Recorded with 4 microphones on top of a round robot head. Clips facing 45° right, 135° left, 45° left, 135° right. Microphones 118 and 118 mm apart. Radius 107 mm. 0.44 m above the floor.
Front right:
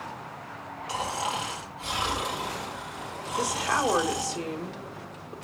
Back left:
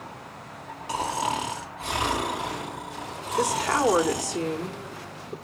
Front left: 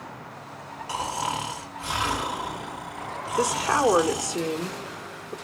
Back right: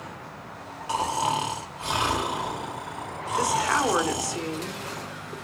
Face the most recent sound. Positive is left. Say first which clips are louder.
# back left 4 dB, front left 1 dB
turn(degrees=105)